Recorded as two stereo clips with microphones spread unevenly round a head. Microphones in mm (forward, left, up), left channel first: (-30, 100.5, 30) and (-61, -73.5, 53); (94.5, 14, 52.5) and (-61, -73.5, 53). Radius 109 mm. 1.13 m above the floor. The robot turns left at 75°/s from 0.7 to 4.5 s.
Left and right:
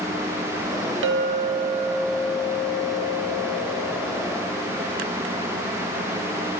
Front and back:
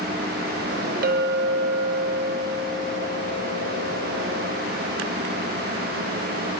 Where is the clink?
110° right, 1.7 m; by 4.7 s 10° right, 1.7 m.